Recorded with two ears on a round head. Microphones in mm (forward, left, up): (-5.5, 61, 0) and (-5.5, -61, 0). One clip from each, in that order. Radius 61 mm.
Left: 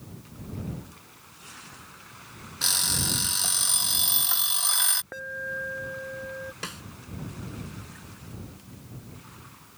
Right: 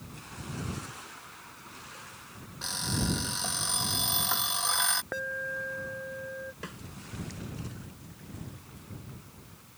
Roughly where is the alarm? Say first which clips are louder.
Even; centre.